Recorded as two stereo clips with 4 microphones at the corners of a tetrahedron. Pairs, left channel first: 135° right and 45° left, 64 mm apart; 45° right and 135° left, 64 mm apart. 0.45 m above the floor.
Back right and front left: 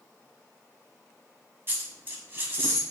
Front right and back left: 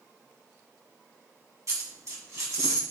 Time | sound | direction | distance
1.7 | a dropped coin | 100° left | 1.5 m